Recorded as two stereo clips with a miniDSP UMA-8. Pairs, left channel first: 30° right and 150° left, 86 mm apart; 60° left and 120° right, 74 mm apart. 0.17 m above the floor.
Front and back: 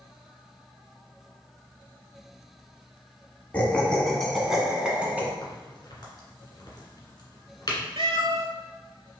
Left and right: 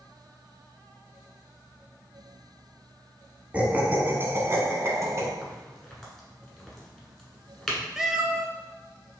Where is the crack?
20° right, 1.4 m.